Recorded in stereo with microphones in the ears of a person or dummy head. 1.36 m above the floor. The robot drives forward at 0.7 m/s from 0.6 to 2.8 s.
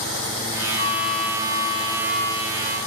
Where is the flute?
50° left (ahead or behind), 3 m; by 2.8 s 35° left (ahead or behind), 4 m.